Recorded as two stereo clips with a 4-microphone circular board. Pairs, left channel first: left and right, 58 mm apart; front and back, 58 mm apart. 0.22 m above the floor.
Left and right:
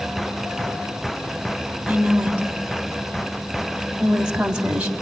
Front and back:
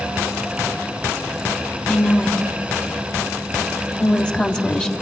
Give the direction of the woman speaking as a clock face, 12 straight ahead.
1 o'clock.